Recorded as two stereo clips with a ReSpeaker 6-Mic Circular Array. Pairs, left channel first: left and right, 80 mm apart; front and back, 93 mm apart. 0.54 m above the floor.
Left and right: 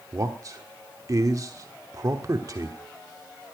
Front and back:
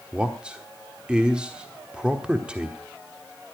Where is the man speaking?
105° right, 1.2 m.